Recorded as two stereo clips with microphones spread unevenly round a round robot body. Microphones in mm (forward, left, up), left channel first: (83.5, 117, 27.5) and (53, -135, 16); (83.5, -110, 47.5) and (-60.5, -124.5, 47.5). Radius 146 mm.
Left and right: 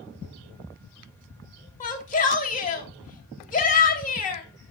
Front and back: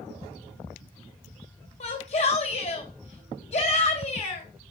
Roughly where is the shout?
Ahead left.